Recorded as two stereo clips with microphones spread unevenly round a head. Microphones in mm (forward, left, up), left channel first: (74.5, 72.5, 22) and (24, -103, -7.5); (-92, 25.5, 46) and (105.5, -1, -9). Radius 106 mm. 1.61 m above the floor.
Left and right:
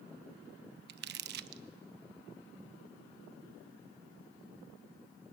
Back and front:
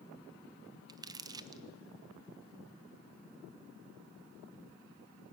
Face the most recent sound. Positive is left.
turn(degrees=-90)